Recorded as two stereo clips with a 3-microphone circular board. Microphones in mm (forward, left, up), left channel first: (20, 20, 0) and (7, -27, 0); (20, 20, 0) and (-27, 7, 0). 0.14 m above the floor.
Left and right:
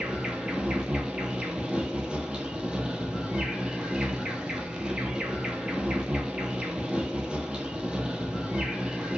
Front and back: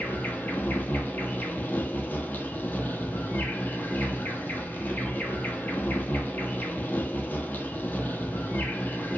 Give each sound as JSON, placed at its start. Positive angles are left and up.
{"t": 0.0, "sound": "an insect", "azimuth_deg": -35, "distance_m": 0.7}